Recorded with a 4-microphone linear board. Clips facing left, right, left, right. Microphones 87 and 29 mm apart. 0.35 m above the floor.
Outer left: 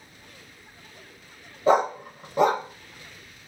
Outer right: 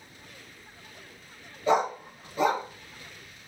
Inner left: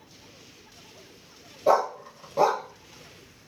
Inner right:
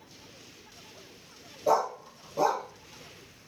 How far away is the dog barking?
About 0.6 m.